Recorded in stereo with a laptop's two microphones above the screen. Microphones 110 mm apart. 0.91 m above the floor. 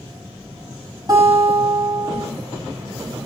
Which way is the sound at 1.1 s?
40° right (ahead or behind).